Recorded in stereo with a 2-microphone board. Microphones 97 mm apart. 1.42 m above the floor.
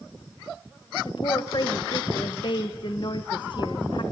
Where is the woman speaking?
50° left (ahead or behind), 1.4 m.